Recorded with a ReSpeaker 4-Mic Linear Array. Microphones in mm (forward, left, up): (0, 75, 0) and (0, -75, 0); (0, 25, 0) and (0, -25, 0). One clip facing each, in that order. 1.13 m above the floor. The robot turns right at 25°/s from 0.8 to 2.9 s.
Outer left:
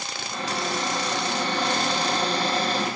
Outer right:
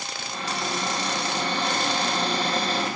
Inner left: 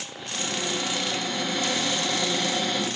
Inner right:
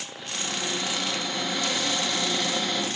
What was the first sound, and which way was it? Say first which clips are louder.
A cupboard door: outer left 2 dB, inner left 2 dB; 110° left.